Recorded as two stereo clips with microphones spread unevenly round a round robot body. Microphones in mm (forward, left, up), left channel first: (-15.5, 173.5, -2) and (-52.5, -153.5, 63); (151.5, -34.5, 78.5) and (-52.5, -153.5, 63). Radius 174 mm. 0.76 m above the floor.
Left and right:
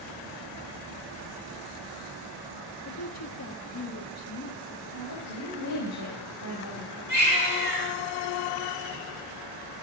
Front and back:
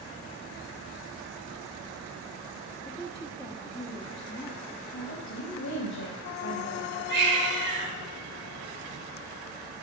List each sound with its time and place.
2.9 s a woman speaking: 100° left, 1.5 m
4.9 s a woman speaking: 35° left, 4 m
7.1 s a baby crying: 145° left, 5.5 m